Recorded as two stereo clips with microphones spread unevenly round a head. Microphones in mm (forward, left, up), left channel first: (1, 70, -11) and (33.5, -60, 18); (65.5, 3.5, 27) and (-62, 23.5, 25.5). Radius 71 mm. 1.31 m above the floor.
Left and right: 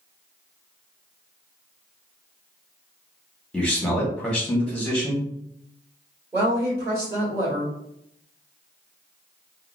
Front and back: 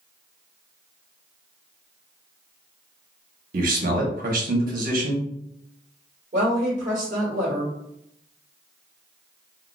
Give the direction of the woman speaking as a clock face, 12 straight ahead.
5 o'clock.